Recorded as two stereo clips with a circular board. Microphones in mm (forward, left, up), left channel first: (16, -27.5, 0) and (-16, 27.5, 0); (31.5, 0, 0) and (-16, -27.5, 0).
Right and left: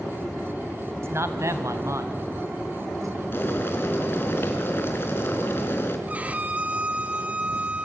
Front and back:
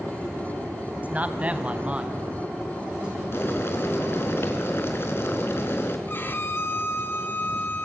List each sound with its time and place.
1.0 s a man speaking: 155° left, 1.9 m; by 3.2 s 140° left, 4.5 m
3.3 s boiling: 10° right, 3 m
6.1 s a violin: 60° left, 1.6 m